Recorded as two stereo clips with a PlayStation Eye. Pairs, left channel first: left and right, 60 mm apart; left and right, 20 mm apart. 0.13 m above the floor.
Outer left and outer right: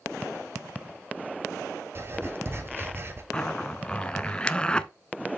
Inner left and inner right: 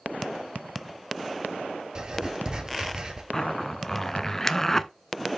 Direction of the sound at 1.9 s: 40° right (ahead or behind).